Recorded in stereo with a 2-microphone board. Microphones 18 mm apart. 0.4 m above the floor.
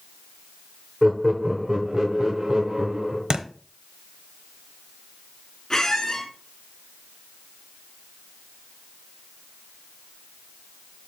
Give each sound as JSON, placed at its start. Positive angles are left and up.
{"t": 1.0, "sound": "laughter", "side_deg": -25, "distance_m": 1.0}
{"t": 3.3, "sound": "a thud", "side_deg": -55, "distance_m": 0.8}
{"t": 5.7, "sound": "a squeak", "side_deg": 25, "distance_m": 2.5}